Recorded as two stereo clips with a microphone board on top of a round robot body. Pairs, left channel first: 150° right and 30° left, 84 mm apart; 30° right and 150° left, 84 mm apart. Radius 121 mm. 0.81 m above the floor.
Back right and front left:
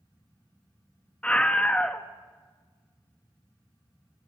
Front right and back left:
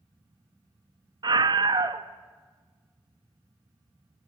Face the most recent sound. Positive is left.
turn(degrees=135)